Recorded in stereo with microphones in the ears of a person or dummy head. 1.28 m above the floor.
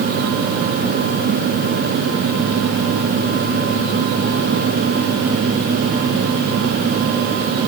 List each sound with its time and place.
Only background noise.